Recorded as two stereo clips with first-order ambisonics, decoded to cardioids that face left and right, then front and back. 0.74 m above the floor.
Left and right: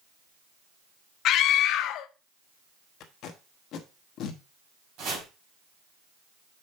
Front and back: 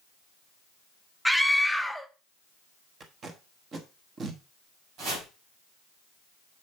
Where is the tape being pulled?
120° left, 1.2 m.